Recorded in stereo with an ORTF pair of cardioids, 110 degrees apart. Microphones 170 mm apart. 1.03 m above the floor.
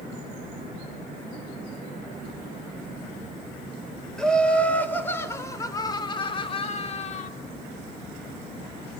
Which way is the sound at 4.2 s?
5° left.